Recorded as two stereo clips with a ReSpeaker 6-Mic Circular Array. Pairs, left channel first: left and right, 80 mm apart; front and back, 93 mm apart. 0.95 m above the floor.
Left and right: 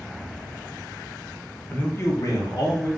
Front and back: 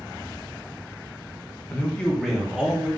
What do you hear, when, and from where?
1.7 s a man speaking: 35° left, 0.6 m; by 2.9 s 105° left, 1.0 m